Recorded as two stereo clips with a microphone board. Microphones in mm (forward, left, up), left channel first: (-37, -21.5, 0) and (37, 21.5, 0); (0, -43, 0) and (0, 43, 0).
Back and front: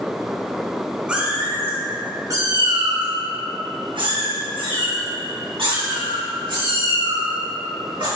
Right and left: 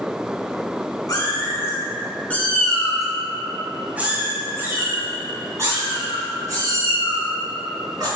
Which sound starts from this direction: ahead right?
A cat meowing, at 1.1 s.